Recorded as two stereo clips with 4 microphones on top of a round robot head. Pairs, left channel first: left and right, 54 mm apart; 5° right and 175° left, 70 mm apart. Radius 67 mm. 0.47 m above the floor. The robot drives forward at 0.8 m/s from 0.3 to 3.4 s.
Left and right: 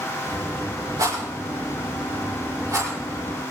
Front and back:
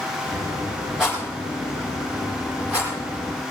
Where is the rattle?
105° right, 8.5 m; by 2.9 s 115° right, 9 m.